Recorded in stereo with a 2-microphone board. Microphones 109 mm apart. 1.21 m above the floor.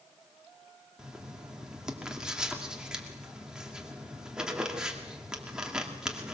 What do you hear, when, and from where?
1.0 s writing: 5° right (ahead or behind), 2.5 m